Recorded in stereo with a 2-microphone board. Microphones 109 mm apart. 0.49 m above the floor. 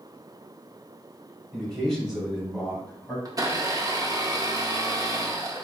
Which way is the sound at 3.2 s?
35° right (ahead or behind).